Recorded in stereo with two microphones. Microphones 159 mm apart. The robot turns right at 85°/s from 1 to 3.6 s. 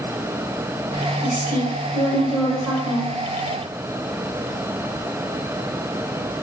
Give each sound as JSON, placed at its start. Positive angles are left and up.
{"t": 1.2, "sound": "a woman speaking", "azimuth_deg": 50, "distance_m": 4.0}